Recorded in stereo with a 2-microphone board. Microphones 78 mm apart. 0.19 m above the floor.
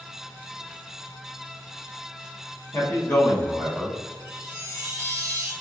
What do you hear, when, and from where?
2.7 s a man speaking: 30° left (ahead or behind), 1.3 m; by 4.0 s centre (ahead or behind), 1.3 m
4.2 s a chime: 40° right (ahead or behind), 1.6 m